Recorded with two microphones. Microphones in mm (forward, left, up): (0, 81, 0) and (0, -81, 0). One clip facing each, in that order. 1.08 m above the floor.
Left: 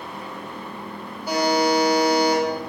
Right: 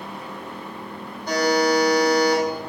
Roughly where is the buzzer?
Centre.